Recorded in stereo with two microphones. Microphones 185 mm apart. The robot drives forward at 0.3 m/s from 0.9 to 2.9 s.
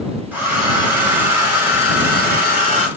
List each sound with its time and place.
0.3 s a hair dryer: 10° right (ahead or behind), 2 m